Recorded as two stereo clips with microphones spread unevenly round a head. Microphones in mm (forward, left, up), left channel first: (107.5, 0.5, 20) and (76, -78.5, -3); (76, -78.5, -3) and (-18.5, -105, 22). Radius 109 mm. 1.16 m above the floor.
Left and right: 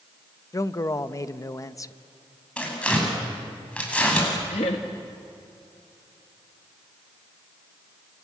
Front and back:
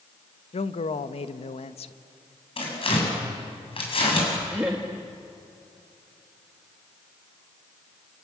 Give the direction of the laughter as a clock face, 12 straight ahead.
8 o'clock.